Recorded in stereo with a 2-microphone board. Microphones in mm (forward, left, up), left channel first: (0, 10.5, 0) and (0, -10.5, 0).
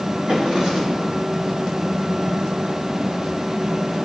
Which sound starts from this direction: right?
A drawer, at 0.3 s.